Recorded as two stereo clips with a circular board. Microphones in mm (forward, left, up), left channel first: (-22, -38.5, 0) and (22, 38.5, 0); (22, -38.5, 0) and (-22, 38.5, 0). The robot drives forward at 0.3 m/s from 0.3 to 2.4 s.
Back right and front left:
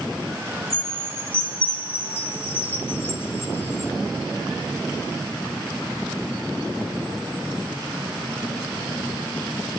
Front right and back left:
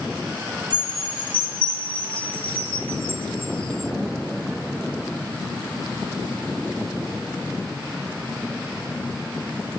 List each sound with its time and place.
0.7 s a chime: 35° right, 1.1 m; by 3.9 s 60° right, 0.8 m